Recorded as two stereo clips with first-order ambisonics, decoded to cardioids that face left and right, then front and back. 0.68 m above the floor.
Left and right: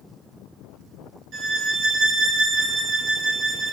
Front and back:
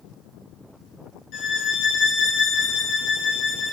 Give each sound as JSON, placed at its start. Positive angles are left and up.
{"t": 1.3, "sound": "a violin", "azimuth_deg": -30, "distance_m": 0.9}